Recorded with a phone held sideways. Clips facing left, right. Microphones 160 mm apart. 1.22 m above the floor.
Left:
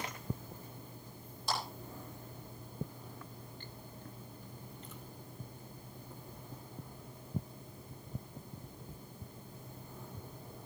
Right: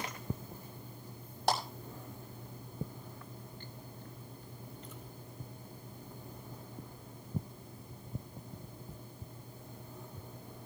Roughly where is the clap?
Right.